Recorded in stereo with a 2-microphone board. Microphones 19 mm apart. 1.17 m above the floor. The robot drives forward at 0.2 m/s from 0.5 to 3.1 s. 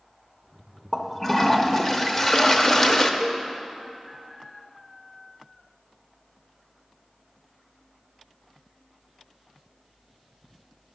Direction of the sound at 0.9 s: 15° left (ahead or behind).